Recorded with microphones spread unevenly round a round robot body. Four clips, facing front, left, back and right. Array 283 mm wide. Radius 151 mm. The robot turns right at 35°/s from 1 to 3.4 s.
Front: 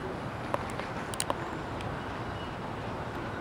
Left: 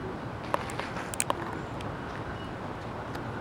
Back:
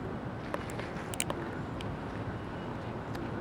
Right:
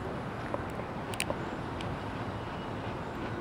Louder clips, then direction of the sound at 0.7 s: Left 2 dB, front 2 dB; 155° left.